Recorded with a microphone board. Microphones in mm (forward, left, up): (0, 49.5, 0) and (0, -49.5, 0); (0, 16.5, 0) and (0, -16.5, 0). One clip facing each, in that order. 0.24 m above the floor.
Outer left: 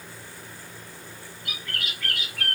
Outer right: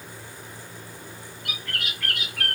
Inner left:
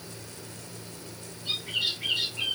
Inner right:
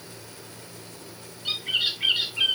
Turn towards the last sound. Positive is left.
turn(degrees=-60)  # may be behind; listen again after turning